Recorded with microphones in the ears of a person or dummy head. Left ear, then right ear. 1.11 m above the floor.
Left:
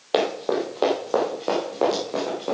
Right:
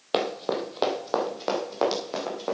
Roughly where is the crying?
No crying in this recording.